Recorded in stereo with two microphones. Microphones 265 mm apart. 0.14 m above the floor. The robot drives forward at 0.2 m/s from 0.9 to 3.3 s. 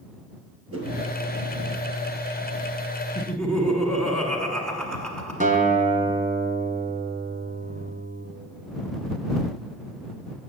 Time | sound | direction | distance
0.7 | a whoosh | 65° right (ahead or behind) | 1.6 m
3.1 | laughter | 5° left (ahead or behind) | 1.2 m
5.4 | a guitar | 30° right (ahead or behind) | 0.7 m